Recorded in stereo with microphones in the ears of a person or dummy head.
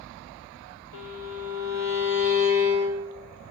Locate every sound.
0.9 s a violin: 85° left, 2 m